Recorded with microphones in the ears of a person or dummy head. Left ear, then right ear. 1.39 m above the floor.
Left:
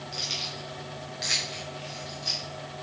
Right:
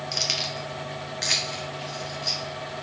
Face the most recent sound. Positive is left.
turn(degrees=-5)  # may be behind; listen again after turning